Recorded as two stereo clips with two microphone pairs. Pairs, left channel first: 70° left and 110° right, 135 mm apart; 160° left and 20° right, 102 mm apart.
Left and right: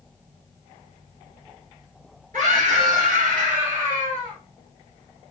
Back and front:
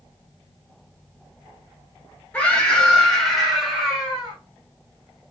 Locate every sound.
2.3 s a scream: 125° right, 2 m; by 4.4 s 95° right, 2 m